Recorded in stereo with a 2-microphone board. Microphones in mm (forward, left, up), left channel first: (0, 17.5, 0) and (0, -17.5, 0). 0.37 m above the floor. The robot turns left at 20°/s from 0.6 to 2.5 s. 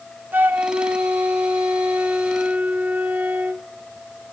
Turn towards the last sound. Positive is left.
turn(degrees=-115)